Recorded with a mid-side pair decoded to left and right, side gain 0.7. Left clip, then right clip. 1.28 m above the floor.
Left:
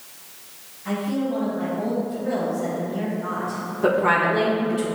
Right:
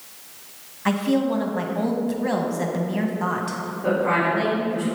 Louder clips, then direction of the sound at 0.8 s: Right 4 dB; 60° right.